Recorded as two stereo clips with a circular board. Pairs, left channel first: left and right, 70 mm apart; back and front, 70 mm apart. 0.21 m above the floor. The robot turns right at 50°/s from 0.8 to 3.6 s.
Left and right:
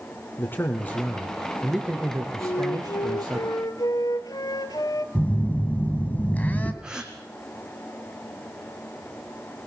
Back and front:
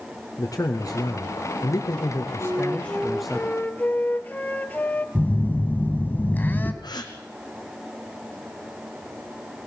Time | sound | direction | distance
0.4 | a man speaking | 145° left | 2.5 m
2.4 | a flute | 55° left | 0.9 m
5.2 | a phone buzzing | 140° left | 1.6 m
6.8 | a gasp | 170° right | 2 m